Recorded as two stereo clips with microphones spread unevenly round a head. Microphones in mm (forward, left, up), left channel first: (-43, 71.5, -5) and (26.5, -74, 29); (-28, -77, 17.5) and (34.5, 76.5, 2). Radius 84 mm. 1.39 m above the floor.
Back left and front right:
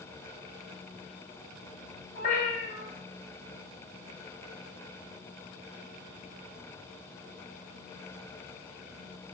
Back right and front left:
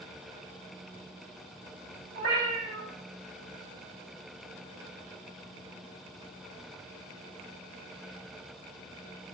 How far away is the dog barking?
I don't hear a dog barking.